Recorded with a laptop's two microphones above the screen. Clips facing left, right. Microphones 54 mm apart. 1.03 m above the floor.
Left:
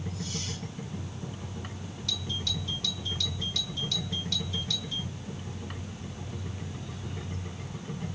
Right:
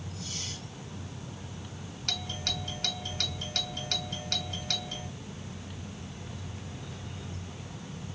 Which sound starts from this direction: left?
A machine running, at 0.0 s.